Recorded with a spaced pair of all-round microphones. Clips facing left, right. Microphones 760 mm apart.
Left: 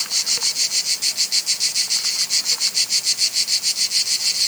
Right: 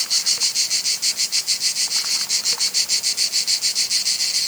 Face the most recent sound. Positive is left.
No sound to turn to.